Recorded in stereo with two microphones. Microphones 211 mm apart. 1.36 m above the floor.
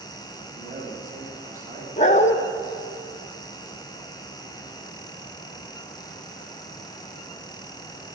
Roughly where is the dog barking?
Left.